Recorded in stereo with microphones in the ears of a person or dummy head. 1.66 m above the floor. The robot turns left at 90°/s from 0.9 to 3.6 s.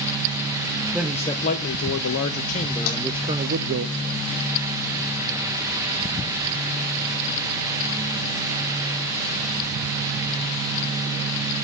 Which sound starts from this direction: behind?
A man speaking, at 0.9 s.